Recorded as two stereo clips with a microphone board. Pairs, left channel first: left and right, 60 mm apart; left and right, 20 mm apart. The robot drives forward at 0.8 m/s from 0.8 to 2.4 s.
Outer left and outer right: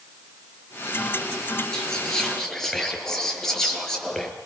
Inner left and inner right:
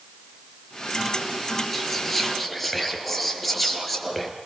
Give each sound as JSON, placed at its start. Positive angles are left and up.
{"t": 1.7, "sound": "whispering", "side_deg": 10, "distance_m": 4.5}